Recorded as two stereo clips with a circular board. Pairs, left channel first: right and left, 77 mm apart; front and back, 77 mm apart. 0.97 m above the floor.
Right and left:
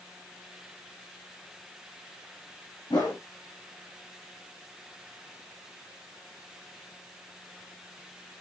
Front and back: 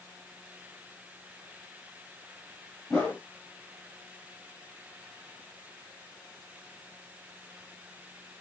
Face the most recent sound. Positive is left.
turn(degrees=-75)